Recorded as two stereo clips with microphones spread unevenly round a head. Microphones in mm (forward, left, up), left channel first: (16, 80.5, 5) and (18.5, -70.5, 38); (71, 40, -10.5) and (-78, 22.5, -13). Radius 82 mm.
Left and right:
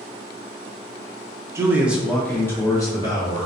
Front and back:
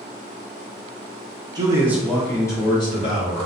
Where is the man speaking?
165° right, 0.6 m; by 3.5 s 45° left, 0.9 m.